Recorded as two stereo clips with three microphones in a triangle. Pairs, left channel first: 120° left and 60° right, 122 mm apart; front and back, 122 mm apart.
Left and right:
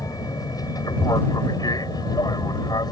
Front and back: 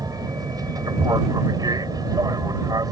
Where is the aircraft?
150° left; by 2.9 s 145° left.